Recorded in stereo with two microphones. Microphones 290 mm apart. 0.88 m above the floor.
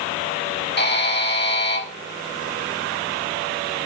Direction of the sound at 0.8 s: 35° left (ahead or behind).